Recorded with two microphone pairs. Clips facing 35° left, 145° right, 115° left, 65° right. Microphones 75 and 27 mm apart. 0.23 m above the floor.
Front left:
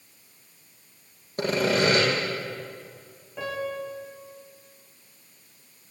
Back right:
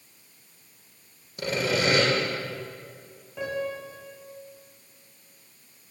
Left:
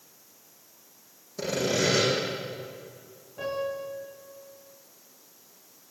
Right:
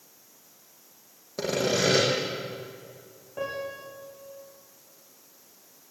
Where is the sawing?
10° right, 7.5 m.